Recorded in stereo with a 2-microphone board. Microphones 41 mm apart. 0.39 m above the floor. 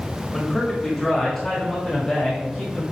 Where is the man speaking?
10° left (ahead or behind), 2.0 m; by 2.8 s 5° left (ahead or behind), 3 m.